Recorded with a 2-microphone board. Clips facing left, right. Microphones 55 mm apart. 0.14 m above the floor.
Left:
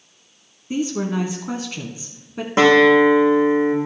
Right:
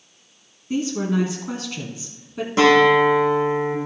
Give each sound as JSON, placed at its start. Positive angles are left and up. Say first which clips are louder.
{"t": 0.7, "sound": "a woman speaking", "louder": "even", "side_deg": 15, "distance_m": 1.1}
{"t": 2.6, "sound": "a guitar", "louder": "left 2 dB", "side_deg": 35, "distance_m": 3.0}